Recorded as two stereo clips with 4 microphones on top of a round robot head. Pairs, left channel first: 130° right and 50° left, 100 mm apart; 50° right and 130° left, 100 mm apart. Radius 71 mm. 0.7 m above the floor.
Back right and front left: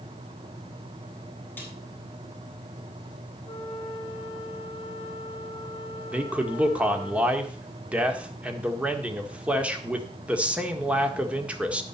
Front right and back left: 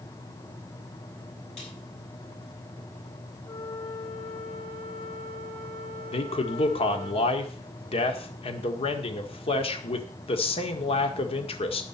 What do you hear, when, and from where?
1.6 s a snare drum: 60° right, 7 m
3.5 s a flute: 90° right, 2.5 m
6.1 s a man speaking: 30° right, 1.8 m